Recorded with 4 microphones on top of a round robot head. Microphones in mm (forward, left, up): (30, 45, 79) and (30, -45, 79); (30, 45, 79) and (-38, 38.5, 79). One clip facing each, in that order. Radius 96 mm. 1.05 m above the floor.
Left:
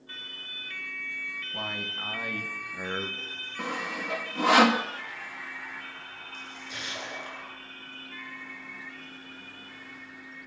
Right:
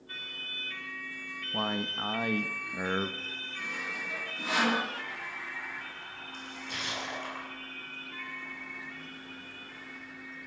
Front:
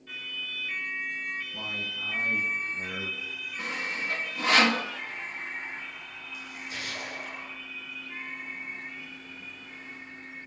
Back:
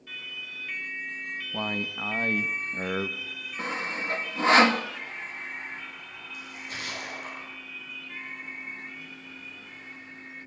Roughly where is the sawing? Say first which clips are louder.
Left 7 dB, back 2 dB; behind left.